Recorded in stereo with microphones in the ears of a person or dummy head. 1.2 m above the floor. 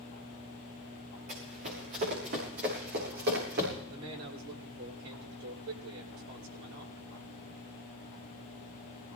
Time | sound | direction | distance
1.3 | running footsteps | 45° right (ahead or behind) | 5.5 m
3.9 | a man speaking | 90° right | 4 m